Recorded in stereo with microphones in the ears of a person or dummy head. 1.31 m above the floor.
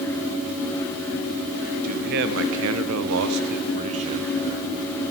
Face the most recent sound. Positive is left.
turn(degrees=-20)  # may be behind; listen again after turning